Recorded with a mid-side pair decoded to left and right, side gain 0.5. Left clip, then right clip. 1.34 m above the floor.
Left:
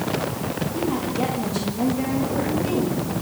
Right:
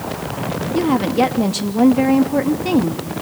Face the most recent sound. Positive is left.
turn(degrees=-65)